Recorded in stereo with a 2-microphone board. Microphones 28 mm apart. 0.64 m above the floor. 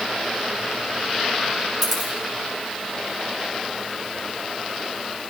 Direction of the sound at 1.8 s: Centre (ahead or behind).